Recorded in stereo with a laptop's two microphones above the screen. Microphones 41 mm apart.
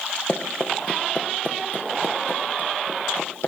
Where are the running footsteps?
20° left (ahead or behind), 4 m; by 3.5 s 60° left (ahead or behind), 5.5 m.